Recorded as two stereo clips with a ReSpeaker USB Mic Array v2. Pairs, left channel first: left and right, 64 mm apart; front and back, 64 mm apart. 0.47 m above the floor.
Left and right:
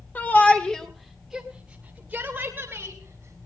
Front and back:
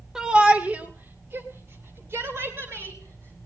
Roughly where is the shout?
Left.